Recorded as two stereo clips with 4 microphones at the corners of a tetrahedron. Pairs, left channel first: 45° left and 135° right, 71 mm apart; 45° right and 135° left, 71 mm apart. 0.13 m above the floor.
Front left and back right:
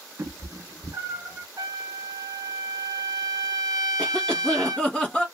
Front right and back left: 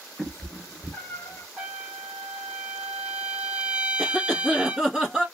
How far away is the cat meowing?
About 0.6 m.